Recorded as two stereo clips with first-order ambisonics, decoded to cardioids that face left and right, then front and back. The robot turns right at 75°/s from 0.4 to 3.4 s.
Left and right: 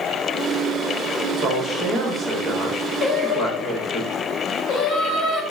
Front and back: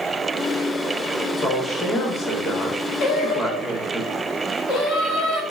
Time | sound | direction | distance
1.2 | a man speaking | 90° right | 0.8 m
3.0 | singing | 5° left | 0.8 m